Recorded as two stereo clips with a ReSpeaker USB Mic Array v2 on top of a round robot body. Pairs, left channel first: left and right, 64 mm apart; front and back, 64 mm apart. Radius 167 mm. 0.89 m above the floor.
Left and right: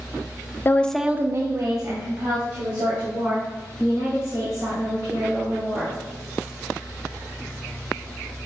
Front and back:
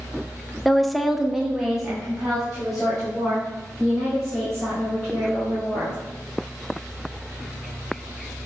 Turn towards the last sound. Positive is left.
turn(degrees=-95)